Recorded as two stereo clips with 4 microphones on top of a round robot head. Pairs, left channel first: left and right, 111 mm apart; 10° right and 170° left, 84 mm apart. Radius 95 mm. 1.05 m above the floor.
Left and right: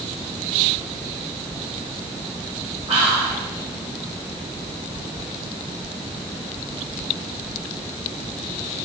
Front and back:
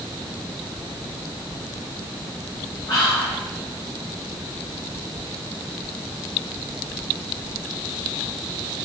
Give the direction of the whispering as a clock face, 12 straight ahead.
2 o'clock.